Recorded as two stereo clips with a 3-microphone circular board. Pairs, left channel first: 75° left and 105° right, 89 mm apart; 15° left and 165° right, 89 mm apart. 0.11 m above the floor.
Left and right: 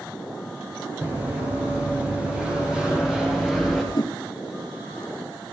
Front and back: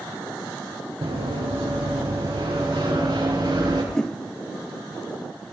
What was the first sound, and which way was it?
Running footsteps, 170° right.